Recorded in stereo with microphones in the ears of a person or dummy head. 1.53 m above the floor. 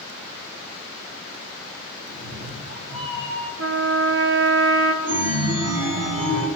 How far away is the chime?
About 1.5 m.